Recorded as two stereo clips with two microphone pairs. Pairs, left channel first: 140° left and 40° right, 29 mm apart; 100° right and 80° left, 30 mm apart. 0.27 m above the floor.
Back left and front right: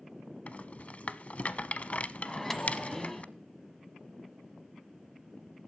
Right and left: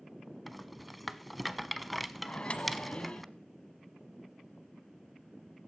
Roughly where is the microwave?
Behind right.